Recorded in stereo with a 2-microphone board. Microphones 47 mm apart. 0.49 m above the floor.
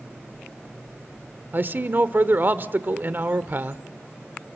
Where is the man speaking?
45° right (ahead or behind), 1.2 m.